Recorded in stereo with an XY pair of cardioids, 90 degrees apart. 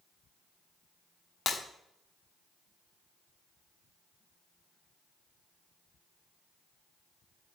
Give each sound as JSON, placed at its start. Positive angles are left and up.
{"t": 1.5, "sound": "breaking glass", "azimuth_deg": 55, "distance_m": 1.5}